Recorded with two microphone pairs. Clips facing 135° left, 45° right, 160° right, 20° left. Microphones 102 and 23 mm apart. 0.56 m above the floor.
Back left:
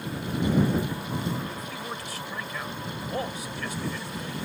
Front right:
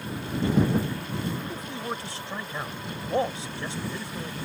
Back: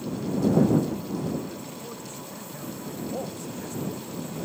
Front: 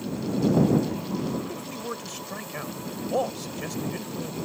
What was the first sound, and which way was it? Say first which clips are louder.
A man speaking: front right 2 dB, front 4 dB; 10° left.